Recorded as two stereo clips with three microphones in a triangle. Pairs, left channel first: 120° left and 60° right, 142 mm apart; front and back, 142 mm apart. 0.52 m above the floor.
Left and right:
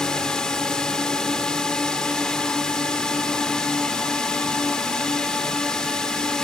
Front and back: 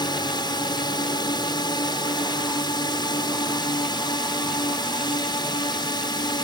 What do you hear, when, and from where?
0.0 s a drone: 40° left